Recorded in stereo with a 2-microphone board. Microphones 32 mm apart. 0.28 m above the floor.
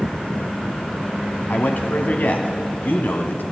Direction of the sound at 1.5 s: 60° left (ahead or behind).